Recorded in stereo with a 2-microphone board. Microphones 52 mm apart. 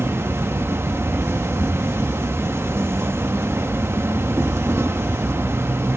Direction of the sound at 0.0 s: 55° right (ahead or behind).